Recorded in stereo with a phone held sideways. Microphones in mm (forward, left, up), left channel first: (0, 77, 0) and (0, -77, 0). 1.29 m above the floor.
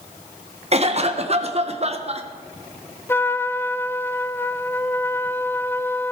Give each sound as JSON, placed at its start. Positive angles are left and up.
{"t": 0.7, "sound": "a cough", "side_deg": -45, "distance_m": 1.3}
{"t": 3.1, "sound": "a trumpet", "side_deg": 15, "distance_m": 0.5}